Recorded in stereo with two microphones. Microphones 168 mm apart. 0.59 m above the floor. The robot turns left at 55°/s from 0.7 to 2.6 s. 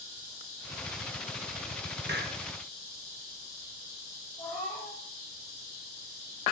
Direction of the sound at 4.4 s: 30° left (ahead or behind).